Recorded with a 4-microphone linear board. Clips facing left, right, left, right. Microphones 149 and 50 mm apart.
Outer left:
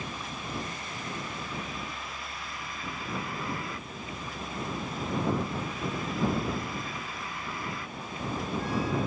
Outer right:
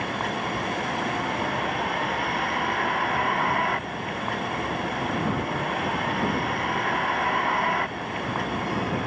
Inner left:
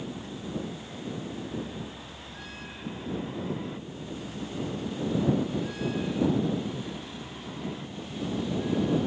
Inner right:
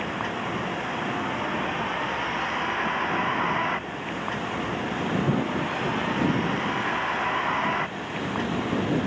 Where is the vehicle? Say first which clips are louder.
Outer right 10 dB, inner right 9 dB; 80° right.